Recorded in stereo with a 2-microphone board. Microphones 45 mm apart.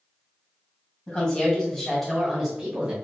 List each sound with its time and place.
1.1 s a woman speaking: 20° left (ahead or behind), 1.7 m; by 2.9 s 25° right (ahead or behind), 1.1 m